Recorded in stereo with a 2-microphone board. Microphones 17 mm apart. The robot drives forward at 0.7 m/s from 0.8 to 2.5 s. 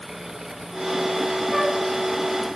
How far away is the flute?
About 4 m.